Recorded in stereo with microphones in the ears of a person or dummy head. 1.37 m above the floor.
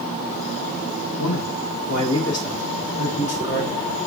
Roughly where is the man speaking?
Left.